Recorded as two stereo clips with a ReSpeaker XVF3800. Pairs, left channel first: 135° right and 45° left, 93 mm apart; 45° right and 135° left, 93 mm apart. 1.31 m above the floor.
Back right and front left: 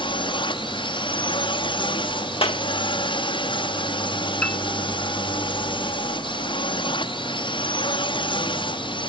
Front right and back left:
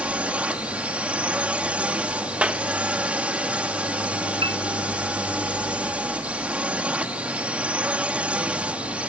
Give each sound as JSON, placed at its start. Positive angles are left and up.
{"t": 0.0, "sound": "a drone", "azimuth_deg": -150}
{"t": 2.4, "sound": "a clap", "azimuth_deg": -150}
{"t": 4.4, "sound": "a piano", "azimuth_deg": 150}